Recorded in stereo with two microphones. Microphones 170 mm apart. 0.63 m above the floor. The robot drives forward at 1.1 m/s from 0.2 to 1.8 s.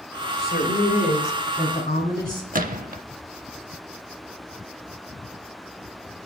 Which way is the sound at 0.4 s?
65° left (ahead or behind).